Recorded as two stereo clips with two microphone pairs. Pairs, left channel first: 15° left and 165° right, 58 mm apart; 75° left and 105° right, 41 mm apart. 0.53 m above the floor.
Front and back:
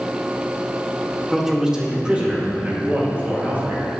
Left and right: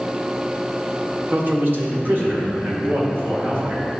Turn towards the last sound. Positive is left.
turn(degrees=-110)